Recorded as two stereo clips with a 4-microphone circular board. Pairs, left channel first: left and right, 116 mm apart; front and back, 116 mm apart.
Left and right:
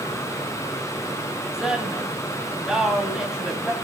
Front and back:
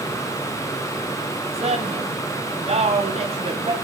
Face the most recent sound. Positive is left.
turn(degrees=-175)